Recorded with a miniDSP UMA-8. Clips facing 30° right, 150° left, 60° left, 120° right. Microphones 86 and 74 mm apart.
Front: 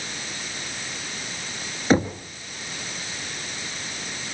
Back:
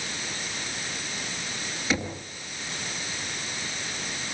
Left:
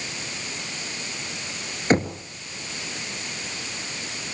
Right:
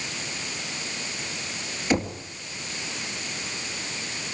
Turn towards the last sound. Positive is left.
turn(degrees=15)